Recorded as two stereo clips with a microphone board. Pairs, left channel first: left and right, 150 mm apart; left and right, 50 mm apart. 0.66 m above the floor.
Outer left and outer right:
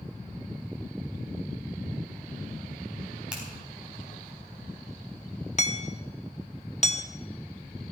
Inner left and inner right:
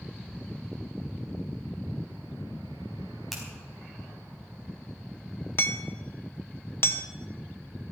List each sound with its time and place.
3.3 s a finger snap: 5° right (ahead or behind), 4.5 m
5.6 s hammering: 50° left (ahead or behind), 0.8 m